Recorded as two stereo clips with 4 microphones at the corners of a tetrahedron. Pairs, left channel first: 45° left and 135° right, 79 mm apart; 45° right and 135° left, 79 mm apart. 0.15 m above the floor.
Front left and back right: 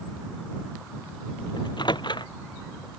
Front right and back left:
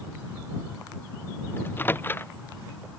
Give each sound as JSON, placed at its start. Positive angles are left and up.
{"t": 1.6, "sound": "a microwave", "azimuth_deg": 20}